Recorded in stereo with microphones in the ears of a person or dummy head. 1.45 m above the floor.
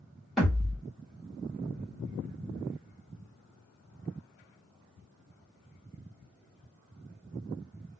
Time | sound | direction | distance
0.4 | a thud | 5° left (ahead or behind) | 1.7 m